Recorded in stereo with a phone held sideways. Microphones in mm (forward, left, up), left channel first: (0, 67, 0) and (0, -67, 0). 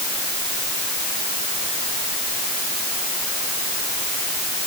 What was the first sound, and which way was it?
Only background noise.